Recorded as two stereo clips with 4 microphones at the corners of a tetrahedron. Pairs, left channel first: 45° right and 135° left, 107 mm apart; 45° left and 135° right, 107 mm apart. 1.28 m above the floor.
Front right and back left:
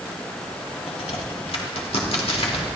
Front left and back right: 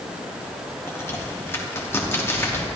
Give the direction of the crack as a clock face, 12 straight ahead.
1 o'clock.